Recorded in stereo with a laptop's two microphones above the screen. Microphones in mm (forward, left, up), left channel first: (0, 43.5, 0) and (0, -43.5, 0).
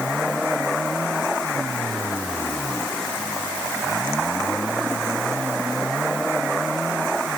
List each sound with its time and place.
Only background noise.